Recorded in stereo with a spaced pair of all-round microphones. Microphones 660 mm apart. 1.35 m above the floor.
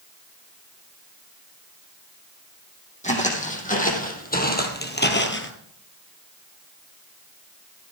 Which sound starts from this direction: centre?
Footsteps, at 3.0 s.